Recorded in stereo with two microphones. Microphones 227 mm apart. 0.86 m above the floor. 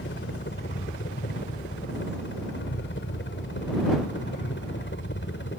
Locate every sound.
0.0 s a helicopter: 55° left (ahead or behind)